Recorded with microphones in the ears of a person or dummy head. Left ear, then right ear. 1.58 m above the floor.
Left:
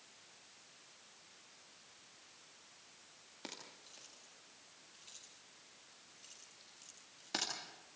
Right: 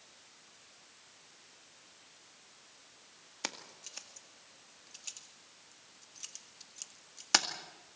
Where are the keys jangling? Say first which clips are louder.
Right 9 dB; 60° right (ahead or behind), 1.9 m.